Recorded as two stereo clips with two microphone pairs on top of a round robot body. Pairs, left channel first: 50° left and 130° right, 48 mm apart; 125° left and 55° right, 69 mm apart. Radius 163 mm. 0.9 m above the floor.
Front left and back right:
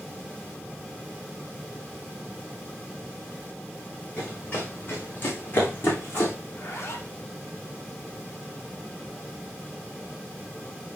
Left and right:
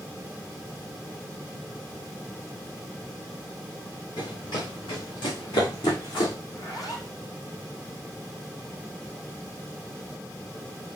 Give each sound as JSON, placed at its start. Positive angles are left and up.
{"t": 4.2, "sound": "running footsteps", "azimuth_deg": 115, "distance_m": 3.0}
{"t": 6.5, "sound": "a zipper", "azimuth_deg": 85, "distance_m": 2.0}